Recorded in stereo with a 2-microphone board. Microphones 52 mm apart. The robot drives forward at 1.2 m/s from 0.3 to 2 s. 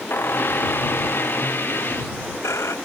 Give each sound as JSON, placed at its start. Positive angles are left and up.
{"t": 0.1, "sound": "a squeak", "side_deg": 50}